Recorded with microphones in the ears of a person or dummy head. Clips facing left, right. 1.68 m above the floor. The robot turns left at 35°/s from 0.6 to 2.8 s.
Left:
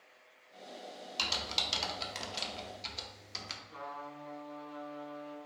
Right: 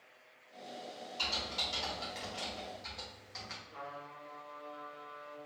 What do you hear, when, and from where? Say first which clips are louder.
1.2 s typing on a keyboard: left 1 dB; 75° left (ahead or behind), 0.7 m; by 3.6 s 45° left (ahead or behind), 0.7 m
3.7 s a trumpet: left 3 dB; 50° left (ahead or behind), 1.8 m